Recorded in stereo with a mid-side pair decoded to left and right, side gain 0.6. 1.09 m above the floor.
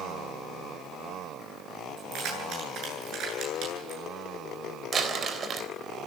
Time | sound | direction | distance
2.0 | keys jangling | 60° right | 10 m
4.9 | crumpling | 40° right | 3.5 m